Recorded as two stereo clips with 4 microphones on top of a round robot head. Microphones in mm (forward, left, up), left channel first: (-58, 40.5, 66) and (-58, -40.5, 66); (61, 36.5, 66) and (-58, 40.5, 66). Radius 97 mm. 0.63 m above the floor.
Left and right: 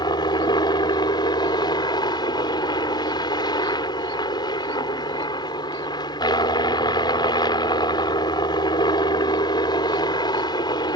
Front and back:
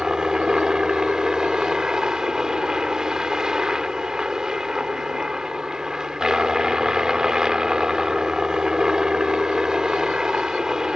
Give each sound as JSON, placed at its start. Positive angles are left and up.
{"t": 0.0, "sound": "a helicopter", "azimuth_deg": 95}